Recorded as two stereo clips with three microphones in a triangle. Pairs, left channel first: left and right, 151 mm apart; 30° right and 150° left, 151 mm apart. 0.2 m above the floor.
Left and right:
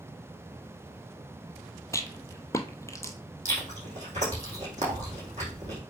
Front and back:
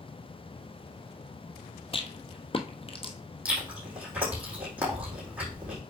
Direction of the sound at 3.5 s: 130° right.